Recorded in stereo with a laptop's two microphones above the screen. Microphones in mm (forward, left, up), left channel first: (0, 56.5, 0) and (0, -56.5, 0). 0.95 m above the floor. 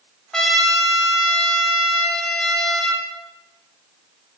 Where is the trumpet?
5° left (ahead or behind), 1.8 m.